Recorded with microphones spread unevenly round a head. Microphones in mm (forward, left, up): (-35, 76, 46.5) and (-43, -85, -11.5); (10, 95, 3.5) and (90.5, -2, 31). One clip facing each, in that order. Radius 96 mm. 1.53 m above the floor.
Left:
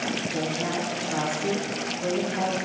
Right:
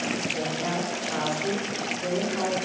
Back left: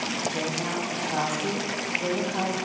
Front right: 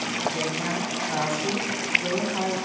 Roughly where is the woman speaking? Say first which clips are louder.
Left 1 dB, front right 1 dB; ahead left.